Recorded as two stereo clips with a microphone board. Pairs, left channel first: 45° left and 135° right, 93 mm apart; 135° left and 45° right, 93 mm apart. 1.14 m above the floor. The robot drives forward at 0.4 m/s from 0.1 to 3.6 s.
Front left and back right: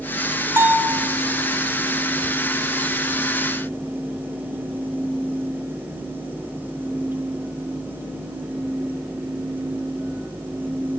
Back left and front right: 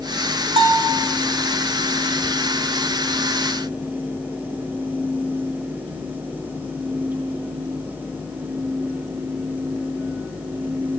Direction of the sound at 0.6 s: 70° right.